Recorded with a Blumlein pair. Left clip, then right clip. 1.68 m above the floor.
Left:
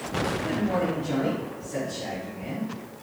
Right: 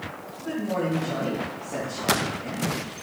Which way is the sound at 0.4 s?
10° left.